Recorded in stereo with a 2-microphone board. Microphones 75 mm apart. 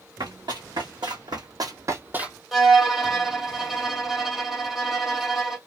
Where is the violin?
5° right (ahead or behind), 1.0 m.